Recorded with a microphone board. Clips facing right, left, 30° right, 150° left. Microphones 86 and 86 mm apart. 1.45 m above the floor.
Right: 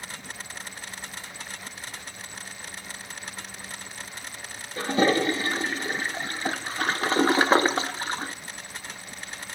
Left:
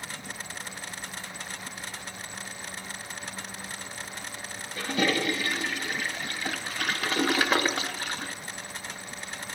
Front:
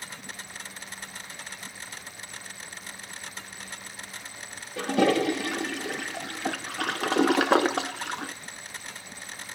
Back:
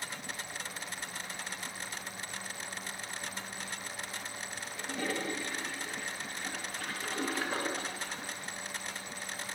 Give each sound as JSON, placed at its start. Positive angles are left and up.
{"t": 4.8, "sound": "a toilet flushing", "azimuth_deg": -30, "distance_m": 1.0}